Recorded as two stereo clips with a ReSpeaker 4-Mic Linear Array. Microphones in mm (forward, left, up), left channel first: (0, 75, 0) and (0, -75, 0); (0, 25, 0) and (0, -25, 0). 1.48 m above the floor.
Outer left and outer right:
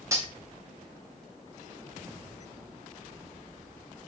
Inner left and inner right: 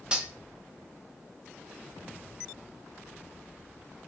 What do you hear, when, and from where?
0.1 s cutlery clinking: 20° right (ahead or behind), 0.6 m